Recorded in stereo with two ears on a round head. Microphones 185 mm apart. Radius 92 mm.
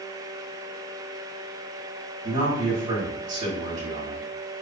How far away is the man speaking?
About 1.4 m.